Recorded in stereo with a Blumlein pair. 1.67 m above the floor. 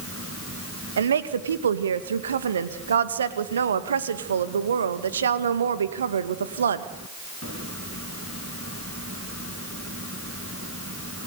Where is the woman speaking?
65° right, 2 m.